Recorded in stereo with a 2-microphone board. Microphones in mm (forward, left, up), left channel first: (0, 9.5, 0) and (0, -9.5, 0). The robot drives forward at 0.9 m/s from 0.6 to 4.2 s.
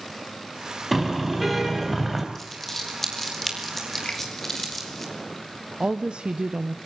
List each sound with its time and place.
0.9 s a car horn: centre (ahead or behind), 4.5 m
2.4 s crumpling: 15° left (ahead or behind), 3.5 m; by 5.0 s 10° left (ahead or behind), 5 m
4.0 s a finger snap: 70° left (ahead or behind), 3 m; by 4.2 s 65° left (ahead or behind), 3 m
5.8 s a woman speaking: 65° right (ahead or behind), 0.8 m